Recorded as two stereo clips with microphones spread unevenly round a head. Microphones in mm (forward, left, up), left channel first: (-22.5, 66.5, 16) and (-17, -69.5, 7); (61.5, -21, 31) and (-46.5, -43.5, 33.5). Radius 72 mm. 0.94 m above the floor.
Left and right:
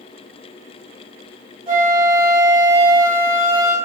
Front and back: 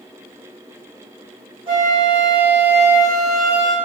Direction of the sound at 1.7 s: 140° right.